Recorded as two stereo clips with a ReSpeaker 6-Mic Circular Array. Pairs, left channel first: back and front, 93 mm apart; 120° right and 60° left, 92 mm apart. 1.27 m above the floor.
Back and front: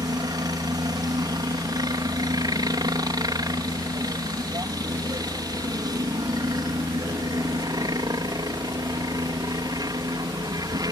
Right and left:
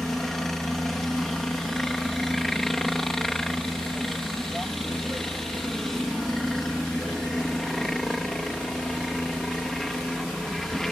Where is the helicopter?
35° right.